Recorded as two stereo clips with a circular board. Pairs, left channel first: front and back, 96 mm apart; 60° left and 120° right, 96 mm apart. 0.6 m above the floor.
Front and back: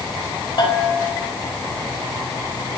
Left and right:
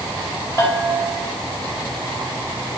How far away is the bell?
About 3.5 m.